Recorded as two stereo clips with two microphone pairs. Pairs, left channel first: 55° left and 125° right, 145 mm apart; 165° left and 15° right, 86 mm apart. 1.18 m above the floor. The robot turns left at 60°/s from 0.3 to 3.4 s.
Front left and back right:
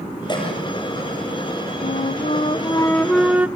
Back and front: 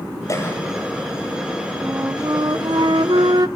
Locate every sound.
0.3 s a cough: 115° left, 7 m; by 0.6 s 95° left, 7 m
1.8 s a flute: 50° left, 0.7 m; by 3.5 s 45° right, 0.7 m